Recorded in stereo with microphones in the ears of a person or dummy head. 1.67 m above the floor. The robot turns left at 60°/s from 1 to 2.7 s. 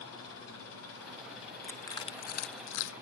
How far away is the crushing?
About 1.4 m.